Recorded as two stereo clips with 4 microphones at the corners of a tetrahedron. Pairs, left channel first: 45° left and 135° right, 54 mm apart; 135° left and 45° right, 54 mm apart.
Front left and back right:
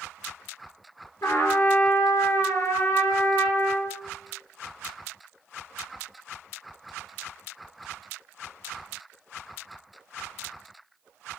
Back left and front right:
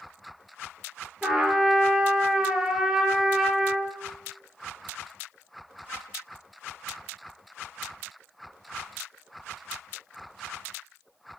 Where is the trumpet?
35° left, 1.7 m.